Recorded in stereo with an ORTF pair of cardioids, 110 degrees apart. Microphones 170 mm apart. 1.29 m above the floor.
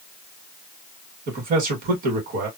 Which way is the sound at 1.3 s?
60° right.